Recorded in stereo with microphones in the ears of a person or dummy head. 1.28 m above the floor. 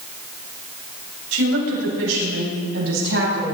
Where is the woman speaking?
90° right, 6 m; by 3.5 s 85° right, 8.5 m.